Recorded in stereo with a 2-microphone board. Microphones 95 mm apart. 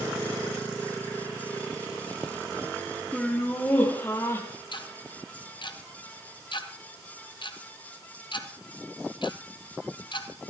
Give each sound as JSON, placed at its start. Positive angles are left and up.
{"t": 3.1, "sound": "laughter", "side_deg": 5, "distance_m": 1.8}
{"t": 4.7, "sound": "ticking", "side_deg": 55, "distance_m": 1.2}